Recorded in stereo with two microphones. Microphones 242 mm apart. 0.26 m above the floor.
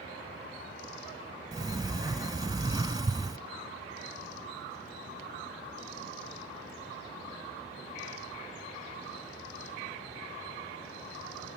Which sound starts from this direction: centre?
A sliding door, at 1.5 s.